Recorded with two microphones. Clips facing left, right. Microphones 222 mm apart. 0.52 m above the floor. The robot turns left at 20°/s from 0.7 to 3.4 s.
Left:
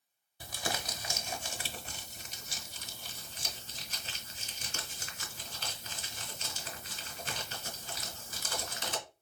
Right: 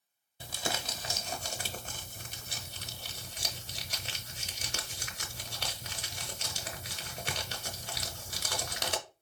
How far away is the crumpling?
About 0.9 m.